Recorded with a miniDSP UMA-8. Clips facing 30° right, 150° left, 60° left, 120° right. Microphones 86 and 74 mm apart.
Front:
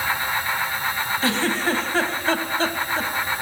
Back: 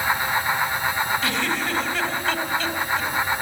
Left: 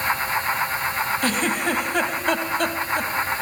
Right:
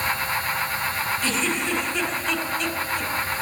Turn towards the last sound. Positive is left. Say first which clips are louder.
# front 2 dB, left 3 dB
turn(degrees=25)